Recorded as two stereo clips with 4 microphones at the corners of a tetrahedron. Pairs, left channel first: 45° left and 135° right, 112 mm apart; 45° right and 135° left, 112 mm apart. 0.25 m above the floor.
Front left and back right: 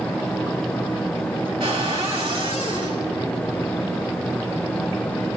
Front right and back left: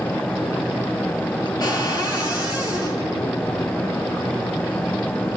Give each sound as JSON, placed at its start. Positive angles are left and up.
{"t": 1.6, "sound": "a cupboard door", "azimuth_deg": -95, "distance_m": 4.0}